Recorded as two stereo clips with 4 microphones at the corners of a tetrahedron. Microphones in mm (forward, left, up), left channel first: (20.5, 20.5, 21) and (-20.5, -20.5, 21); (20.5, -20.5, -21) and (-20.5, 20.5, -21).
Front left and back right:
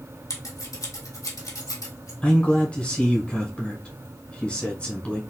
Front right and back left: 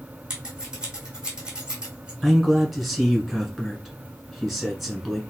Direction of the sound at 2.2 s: 40° left.